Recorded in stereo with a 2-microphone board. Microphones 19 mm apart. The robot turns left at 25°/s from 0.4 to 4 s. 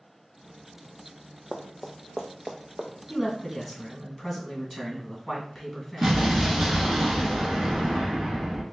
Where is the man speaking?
20° left (ahead or behind), 1.8 m; by 7.0 s centre (ahead or behind), 1.8 m.